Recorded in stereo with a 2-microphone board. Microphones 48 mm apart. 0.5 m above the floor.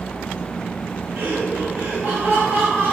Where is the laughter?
50° right (ahead or behind), 1.4 m; by 2.9 s 45° right (ahead or behind), 3 m.